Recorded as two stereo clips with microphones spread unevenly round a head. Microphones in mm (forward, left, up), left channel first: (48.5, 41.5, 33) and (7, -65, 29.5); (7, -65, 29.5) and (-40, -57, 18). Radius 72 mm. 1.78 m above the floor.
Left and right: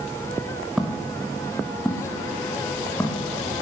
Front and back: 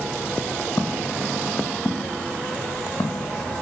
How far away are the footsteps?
About 4 m.